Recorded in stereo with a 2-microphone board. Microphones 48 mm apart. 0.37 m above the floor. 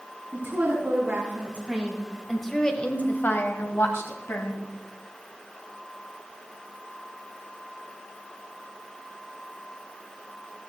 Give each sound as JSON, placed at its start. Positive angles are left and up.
{"t": 0.3, "sound": "a woman speaking", "side_deg": -45, "distance_m": 3.5}